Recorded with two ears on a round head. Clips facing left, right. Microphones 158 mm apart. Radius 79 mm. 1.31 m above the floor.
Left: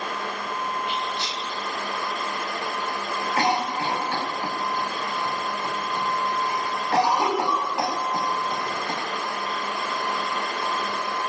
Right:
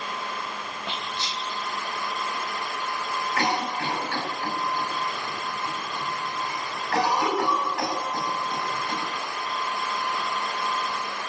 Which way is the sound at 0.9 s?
25° right (ahead or behind).